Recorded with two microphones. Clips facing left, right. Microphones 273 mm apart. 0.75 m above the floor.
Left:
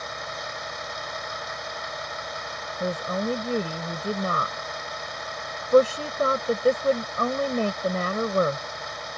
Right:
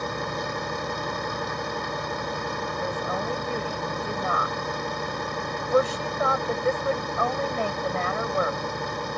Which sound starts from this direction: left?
A woman speaking, at 2.8 s.